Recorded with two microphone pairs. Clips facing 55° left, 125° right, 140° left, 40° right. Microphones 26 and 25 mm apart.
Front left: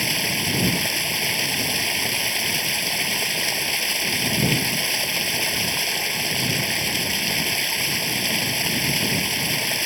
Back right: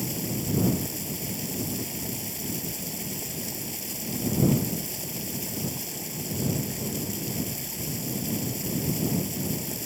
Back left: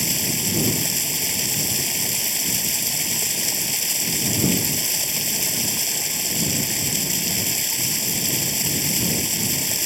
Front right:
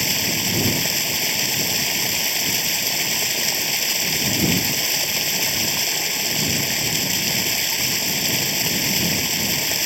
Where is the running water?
30° left.